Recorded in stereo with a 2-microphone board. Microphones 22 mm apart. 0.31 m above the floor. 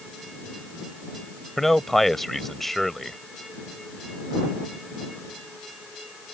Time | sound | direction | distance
1.6 | a man speaking | 10° left (ahead or behind) | ?